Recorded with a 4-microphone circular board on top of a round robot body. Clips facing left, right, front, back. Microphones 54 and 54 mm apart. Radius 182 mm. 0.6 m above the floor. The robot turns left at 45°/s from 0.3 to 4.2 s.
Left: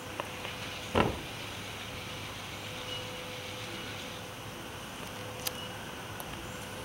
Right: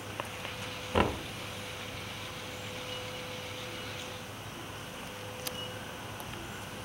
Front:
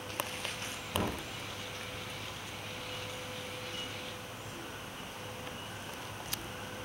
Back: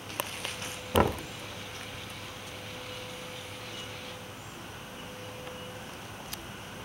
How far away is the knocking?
About 0.8 m.